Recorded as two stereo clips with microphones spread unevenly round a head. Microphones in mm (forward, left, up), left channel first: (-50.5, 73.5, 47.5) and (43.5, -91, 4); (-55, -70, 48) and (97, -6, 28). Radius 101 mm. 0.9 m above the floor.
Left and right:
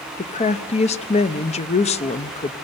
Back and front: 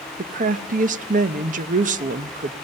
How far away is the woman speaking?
About 0.7 m.